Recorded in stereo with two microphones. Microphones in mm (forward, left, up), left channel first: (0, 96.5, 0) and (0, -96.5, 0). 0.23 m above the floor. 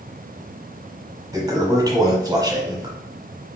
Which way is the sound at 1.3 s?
20° right (ahead or behind).